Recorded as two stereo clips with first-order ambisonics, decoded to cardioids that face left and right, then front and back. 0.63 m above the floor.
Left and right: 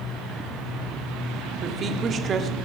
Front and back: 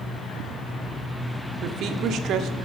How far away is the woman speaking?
About 1.4 m.